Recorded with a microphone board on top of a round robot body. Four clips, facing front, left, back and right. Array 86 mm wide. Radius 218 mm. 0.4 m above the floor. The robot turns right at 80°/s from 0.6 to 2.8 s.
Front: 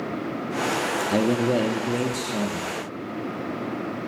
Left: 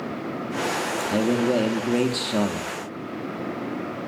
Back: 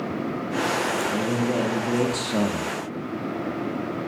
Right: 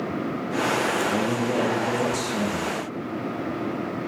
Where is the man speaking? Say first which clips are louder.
Left 2 dB, front 3 dB; 20° left, 0.8 m; by 2.7 s 150° left, 0.8 m.